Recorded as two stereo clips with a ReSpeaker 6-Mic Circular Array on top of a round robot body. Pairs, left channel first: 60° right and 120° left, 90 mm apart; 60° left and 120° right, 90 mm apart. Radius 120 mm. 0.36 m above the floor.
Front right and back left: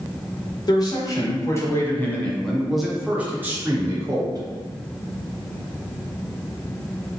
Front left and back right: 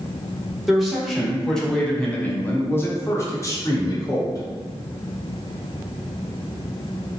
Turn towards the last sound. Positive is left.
turn(degrees=95)